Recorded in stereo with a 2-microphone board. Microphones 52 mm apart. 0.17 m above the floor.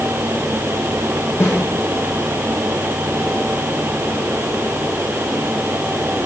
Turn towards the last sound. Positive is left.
turn(degrees=60)  # may be behind; listen again after turning